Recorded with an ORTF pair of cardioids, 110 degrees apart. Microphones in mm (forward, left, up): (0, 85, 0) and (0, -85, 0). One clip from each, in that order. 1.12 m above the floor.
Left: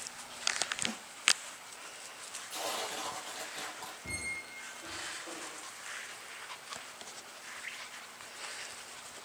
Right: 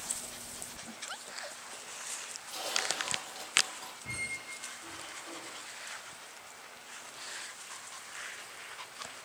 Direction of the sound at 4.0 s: 25° left.